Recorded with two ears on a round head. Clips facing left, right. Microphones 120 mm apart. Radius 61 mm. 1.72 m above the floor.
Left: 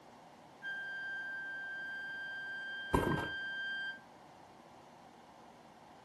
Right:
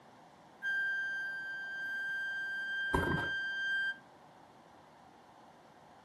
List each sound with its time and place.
0.6 s a flute: 50° right (ahead or behind), 0.6 m
2.9 s a thud: 15° left (ahead or behind), 1.4 m